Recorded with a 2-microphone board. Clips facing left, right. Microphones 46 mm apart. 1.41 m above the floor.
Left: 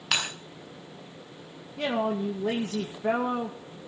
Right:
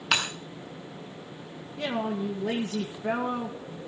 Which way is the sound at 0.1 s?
5° right (ahead or behind).